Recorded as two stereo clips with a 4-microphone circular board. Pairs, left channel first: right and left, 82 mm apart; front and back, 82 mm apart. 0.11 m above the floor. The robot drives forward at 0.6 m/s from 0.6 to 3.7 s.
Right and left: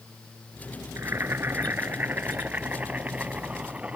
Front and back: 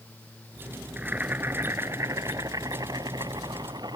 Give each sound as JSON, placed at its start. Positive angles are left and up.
{"t": 1.0, "sound": "boiling", "azimuth_deg": 115}